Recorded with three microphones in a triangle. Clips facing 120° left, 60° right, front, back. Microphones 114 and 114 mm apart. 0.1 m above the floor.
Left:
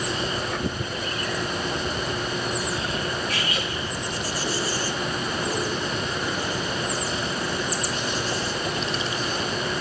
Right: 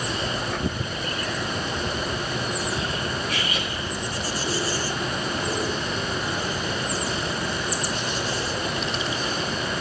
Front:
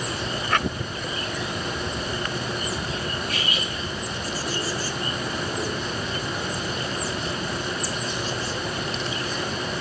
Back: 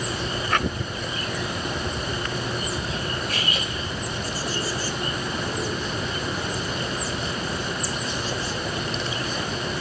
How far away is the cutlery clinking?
About 5.5 m.